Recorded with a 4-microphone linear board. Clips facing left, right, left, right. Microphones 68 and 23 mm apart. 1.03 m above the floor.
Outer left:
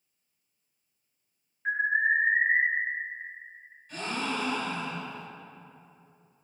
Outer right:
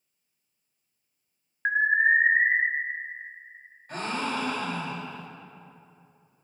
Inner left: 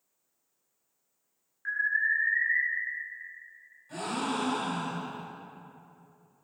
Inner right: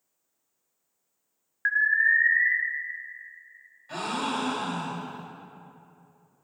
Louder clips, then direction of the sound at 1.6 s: Outer right 4 dB, inner right 6 dB; 70° right (ahead or behind).